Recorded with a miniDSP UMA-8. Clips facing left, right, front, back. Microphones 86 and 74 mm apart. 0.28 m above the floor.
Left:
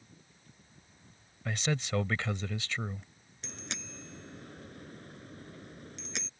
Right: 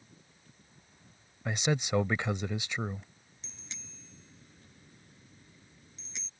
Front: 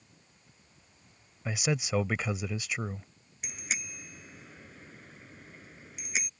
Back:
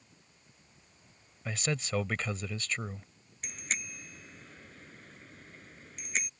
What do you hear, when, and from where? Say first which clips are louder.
1.4 s a man speaking: right 3 dB, front 3 dB; 60° right
3.4 s a bicycle bell: left 10 dB, even; 85° left